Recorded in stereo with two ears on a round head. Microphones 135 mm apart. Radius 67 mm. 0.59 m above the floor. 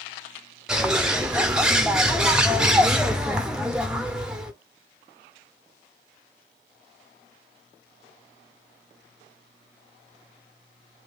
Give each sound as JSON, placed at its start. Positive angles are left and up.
{"t": 0.7, "sound": "a bird", "side_deg": -5, "distance_m": 0.7}